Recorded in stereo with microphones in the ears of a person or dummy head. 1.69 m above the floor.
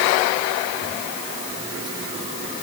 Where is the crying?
I don't hear crying.